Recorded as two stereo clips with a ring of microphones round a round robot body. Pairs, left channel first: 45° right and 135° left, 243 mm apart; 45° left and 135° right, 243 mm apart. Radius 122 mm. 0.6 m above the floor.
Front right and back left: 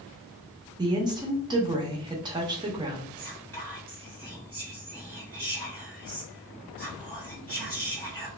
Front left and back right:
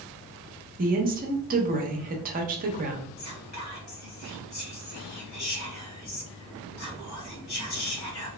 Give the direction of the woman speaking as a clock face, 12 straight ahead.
5 o'clock.